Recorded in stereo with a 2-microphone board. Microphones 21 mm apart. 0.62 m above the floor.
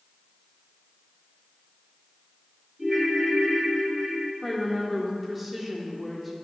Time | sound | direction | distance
2.8 | a ringtone | 20° right (ahead or behind) | 2 m
4.4 | a woman speaking | 5° right (ahead or behind) | 1.2 m